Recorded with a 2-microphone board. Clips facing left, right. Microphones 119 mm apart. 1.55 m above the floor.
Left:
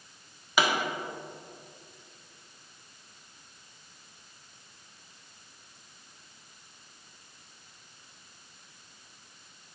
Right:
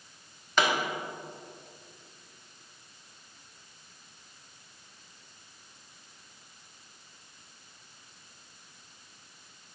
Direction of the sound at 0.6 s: 10° left (ahead or behind).